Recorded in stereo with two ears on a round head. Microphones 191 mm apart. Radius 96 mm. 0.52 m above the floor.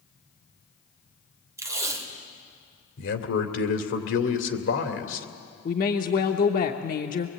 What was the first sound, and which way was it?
Tape being pulled, 15° right (ahead or behind).